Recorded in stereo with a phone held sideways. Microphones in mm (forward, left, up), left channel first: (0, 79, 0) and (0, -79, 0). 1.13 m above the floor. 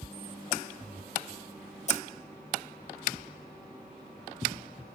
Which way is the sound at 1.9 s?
45° left (ahead or behind).